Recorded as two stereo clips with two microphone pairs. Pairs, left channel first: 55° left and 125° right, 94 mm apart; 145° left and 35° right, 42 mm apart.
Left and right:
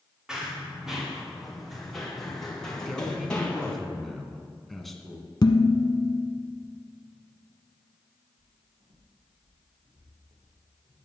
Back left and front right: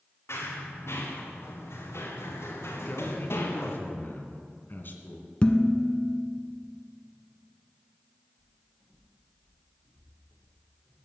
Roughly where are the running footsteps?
Behind left.